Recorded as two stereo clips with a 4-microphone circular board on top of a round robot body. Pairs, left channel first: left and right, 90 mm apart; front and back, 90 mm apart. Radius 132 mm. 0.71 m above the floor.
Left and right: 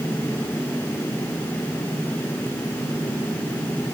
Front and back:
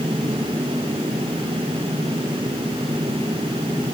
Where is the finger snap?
I don't hear a finger snap.